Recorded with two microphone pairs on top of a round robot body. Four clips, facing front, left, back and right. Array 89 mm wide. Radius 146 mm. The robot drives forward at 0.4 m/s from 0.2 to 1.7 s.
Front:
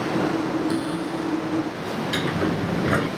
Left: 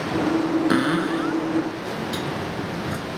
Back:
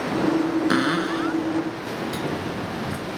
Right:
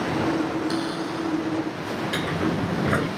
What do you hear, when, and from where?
0.7 s a cupboard door: 150° left
2.1 s a sliding door: 35° right